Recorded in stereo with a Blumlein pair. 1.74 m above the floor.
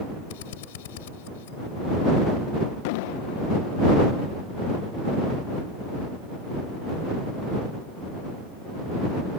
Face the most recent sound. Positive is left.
turn(degrees=45)